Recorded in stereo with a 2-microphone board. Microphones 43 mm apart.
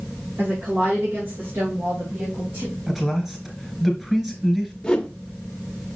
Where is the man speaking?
5° right (ahead or behind), 3.5 m.